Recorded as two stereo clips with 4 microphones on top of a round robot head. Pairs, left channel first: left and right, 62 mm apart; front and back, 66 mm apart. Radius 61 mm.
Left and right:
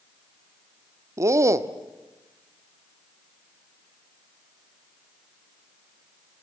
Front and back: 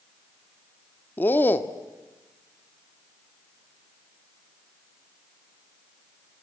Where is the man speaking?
60° right, 1.3 m.